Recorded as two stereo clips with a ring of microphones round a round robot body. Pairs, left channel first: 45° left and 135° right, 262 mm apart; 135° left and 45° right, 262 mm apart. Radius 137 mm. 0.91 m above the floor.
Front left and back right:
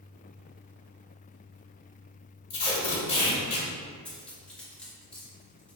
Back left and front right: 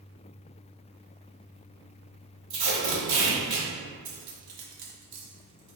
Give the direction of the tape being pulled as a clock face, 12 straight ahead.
1 o'clock.